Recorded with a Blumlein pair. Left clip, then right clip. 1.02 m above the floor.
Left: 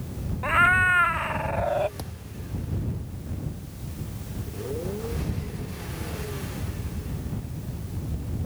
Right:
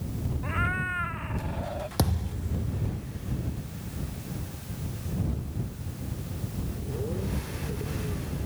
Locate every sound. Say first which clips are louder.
0.4 s a cat meowing: left 11 dB; 30° left
2.0 s a thud: right 9 dB; 60° right